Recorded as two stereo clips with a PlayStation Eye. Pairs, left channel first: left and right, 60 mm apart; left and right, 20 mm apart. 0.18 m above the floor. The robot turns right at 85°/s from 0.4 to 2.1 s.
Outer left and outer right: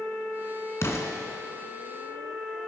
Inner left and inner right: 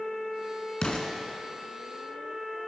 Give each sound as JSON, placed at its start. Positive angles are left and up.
{"t": 0.8, "sound": "an explosion", "side_deg": 50, "distance_m": 1.3}